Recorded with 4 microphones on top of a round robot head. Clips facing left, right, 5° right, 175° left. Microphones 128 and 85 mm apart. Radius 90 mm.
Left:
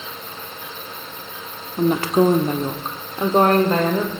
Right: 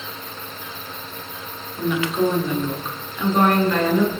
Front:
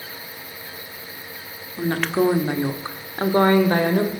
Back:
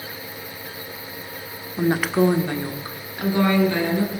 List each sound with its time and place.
1.8 s a woman speaking: 110° left, 1.3 m; by 4.1 s 25° left, 2 m